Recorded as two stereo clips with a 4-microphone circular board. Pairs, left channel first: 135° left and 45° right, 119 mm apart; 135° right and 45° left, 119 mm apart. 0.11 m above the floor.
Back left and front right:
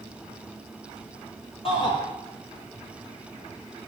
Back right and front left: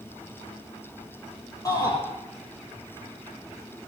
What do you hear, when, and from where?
1.6 s a shout: 170° left, 3.5 m